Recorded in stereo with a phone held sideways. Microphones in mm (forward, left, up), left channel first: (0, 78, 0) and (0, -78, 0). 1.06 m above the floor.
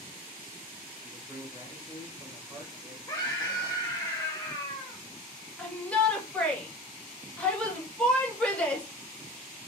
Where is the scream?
25° left (ahead or behind), 0.6 m.